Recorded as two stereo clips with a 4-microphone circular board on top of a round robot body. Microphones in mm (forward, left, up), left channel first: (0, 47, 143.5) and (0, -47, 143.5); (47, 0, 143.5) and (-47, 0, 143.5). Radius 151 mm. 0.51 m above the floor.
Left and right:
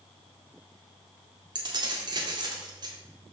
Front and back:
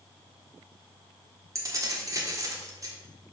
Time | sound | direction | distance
1.6 | keys jangling | 130° right | 1.5 m